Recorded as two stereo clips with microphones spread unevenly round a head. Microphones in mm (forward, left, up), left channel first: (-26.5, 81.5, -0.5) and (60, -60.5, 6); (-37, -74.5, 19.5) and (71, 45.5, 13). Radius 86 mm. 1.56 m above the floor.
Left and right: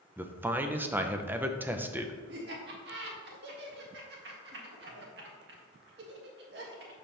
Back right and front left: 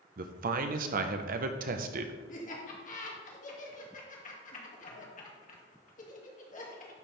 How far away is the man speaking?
About 0.8 m.